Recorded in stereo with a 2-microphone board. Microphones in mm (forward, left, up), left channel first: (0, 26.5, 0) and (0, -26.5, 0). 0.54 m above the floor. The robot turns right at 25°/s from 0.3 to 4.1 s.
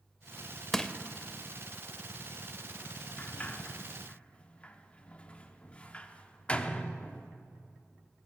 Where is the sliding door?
30° left (ahead or behind), 0.6 m; by 7.3 s 20° left (ahead or behind), 0.6 m.